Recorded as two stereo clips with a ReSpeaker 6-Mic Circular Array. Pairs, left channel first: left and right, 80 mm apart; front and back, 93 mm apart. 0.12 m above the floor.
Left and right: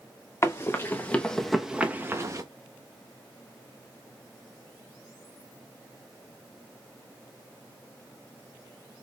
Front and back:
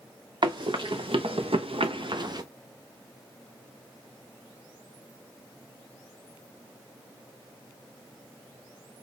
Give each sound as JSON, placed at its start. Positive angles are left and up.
{"t": 0.4, "sound": "running footsteps", "azimuth_deg": 145, "distance_m": 1.6}